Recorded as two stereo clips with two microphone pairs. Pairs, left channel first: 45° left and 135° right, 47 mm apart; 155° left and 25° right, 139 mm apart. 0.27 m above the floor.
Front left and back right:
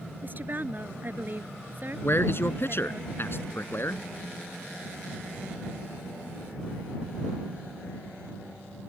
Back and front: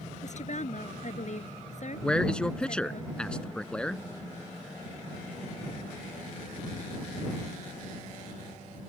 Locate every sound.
0.2 s a woman speaking: straight behind
2.0 s a man speaking: 75° left